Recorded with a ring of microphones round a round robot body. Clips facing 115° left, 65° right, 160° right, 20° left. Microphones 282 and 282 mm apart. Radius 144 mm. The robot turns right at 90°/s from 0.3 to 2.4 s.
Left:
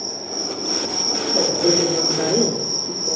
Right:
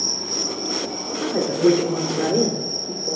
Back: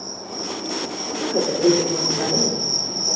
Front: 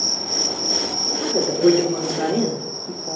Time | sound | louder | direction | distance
0.0 | an insect | even, front 2 dB | 5° right | 1.0 m
1.2 | a woman speaking | right 2 dB, front 1 dB | 70° right | 2 m